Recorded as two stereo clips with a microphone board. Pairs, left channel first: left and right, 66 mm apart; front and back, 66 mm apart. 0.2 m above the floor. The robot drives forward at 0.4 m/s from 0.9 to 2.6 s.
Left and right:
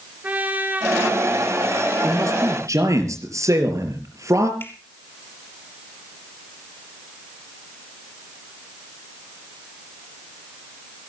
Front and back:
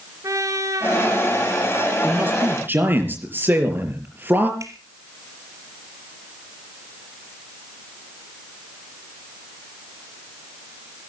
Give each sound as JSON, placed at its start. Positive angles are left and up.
{"t": 0.2, "sound": "a trumpet", "azimuth_deg": -150, "distance_m": 2.5}
{"t": 2.0, "sound": "a man speaking", "azimuth_deg": -120, "distance_m": 4.5}
{"t": 4.6, "sound": "a finger snap", "azimuth_deg": 145, "distance_m": 4.0}